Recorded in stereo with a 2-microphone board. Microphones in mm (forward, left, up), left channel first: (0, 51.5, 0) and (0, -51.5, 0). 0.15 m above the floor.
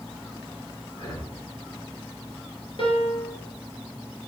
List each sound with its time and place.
0.9 s breathing: 45° left (ahead or behind), 2.5 m
2.8 s a piano: 55° left (ahead or behind), 2 m